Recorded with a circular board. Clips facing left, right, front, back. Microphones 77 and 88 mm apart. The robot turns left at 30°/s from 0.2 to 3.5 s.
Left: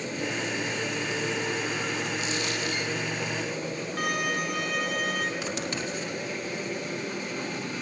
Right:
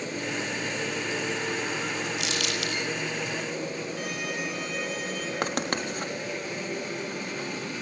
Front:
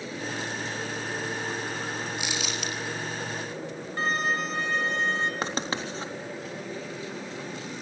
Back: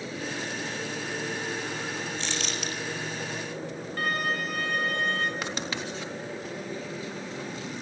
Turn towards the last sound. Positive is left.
turn(degrees=-55)